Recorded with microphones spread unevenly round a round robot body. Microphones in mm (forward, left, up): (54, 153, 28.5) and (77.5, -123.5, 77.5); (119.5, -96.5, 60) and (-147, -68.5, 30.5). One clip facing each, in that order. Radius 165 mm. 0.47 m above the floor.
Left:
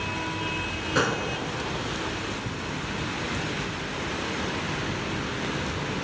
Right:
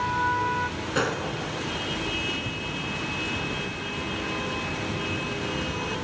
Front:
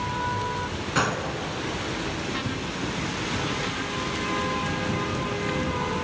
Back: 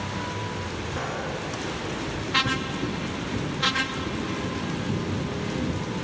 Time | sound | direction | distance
0.9 | a gunshot | 5° left | 0.8 m